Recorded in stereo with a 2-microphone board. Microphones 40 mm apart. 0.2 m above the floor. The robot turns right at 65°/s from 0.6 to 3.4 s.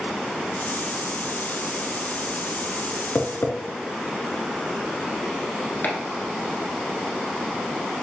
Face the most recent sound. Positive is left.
turn(degrees=45)  # may be behind; listen again after turning